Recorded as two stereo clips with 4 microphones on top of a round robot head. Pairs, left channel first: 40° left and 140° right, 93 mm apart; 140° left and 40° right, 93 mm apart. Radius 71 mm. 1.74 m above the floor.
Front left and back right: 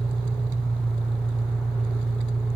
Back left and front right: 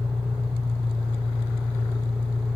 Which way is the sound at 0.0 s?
50° right.